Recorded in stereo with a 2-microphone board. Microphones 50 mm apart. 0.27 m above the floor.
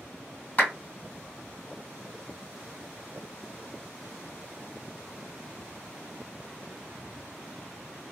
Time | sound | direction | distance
0.6 | a clap | 30° left (ahead or behind) | 2 m